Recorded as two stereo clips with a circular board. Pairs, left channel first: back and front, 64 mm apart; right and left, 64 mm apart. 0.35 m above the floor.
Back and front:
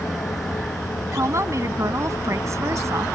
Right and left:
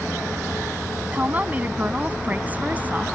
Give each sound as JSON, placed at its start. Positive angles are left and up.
{"t": 1.1, "sound": "a woman speaking", "azimuth_deg": 30}